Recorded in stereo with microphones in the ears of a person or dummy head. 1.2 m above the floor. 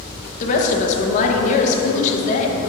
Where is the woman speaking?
40° left (ahead or behind), 0.9 m.